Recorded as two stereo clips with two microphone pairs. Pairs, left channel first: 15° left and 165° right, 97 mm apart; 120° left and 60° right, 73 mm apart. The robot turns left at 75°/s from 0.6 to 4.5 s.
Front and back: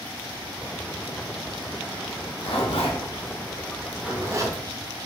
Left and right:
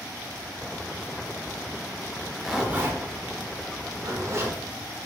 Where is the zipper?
55° left, 0.5 m; by 4.6 s 120° right, 0.5 m.